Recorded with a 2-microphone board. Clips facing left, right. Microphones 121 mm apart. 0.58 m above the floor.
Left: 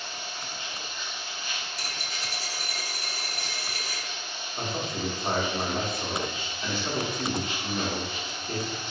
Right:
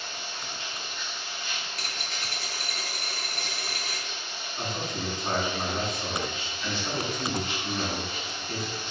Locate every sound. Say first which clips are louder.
0.0 s running water: even; 35° right (ahead or behind), 1.5 m
1.7 s a dropped coin: even; 55° right (ahead or behind), 0.6 m
4.6 s a man speaking: left 2 dB; 25° left (ahead or behind), 0.8 m